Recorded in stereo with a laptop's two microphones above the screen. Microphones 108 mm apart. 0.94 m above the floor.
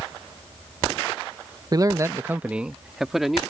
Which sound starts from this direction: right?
A man speaking, at 1.7 s.